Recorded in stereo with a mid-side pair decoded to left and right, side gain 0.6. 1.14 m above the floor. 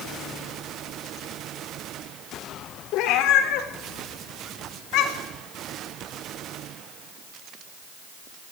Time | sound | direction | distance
2.9 | a cat meowing | 70° left | 1.7 m